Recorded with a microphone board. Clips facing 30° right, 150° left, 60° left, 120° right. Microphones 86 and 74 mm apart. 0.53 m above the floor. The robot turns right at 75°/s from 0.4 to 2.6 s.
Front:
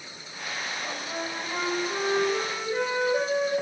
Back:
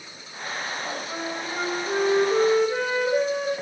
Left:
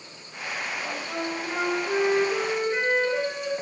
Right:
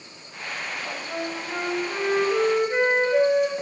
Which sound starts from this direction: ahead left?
A flute, at 0.8 s.